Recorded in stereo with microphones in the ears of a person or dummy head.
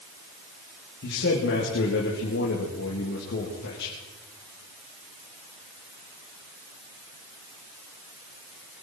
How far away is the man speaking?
About 2.5 m.